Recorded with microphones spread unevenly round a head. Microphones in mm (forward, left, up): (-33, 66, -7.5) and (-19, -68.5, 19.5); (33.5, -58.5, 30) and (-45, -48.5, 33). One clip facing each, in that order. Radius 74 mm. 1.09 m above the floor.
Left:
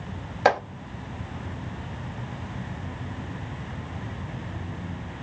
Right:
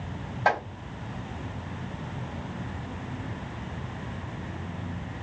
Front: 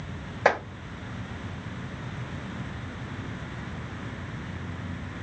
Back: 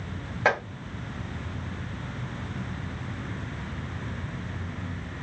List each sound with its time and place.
0.5 s chopping: 80° left, 1.2 m